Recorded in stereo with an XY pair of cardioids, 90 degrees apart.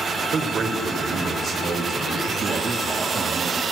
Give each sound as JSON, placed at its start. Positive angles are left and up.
{"t": 0.3, "sound": "a man speaking", "azimuth_deg": -60, "distance_m": 1.6}
{"t": 2.3, "sound": "a man speaking", "azimuth_deg": -55, "distance_m": 2.5}